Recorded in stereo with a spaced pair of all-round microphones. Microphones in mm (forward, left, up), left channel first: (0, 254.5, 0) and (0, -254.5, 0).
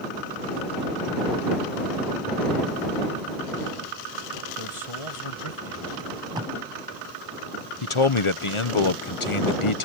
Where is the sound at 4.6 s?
80° left.